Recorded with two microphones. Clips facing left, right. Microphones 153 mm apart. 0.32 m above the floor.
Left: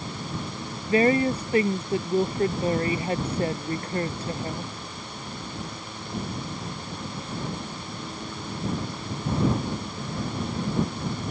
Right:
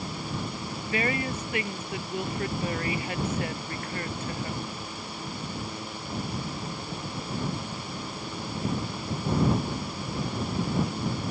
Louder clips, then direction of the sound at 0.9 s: Left 9 dB; 30° left (ahead or behind).